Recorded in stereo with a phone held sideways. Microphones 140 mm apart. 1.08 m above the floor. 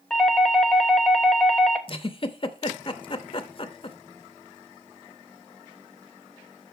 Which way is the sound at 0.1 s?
5° left (ahead or behind).